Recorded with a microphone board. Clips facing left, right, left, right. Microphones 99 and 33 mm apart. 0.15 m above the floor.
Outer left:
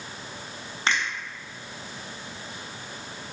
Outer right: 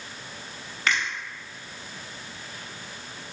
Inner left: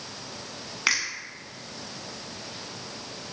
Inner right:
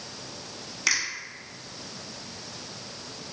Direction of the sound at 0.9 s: 30° left (ahead or behind).